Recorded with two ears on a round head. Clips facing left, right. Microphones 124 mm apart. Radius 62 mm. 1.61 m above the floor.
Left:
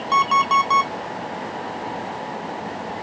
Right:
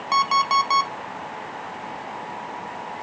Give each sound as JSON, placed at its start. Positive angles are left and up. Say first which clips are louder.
{"t": 0.1, "sound": "an alarm clock", "louder": "left 2 dB", "side_deg": -10, "distance_m": 1.0}